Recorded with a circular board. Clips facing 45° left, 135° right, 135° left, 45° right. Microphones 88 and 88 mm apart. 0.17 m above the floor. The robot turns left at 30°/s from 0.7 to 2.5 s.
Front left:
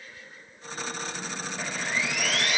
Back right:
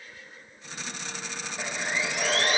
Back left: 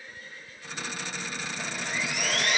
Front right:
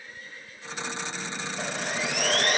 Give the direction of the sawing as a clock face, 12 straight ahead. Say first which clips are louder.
Back right 1 dB, front right 3 dB; 2 o'clock.